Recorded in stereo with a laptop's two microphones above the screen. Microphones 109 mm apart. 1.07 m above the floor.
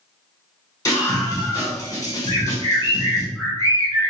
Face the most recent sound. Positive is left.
turn(degrees=20)  # may be behind; listen again after turning